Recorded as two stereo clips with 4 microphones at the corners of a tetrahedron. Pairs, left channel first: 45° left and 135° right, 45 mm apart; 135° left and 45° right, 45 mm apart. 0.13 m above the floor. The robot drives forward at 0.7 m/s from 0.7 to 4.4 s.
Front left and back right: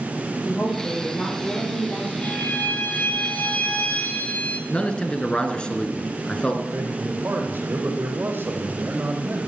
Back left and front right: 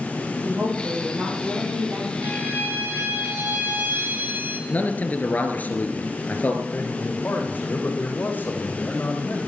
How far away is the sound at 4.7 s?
About 2 m.